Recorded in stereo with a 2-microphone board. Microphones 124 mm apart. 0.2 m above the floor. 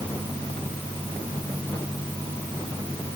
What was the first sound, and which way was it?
Only background noise.